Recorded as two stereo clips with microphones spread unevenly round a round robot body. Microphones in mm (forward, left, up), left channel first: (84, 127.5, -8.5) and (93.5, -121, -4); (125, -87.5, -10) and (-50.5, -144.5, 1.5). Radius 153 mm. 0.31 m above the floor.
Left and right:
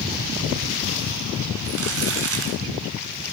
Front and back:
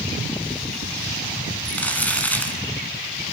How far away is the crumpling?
About 1.7 m.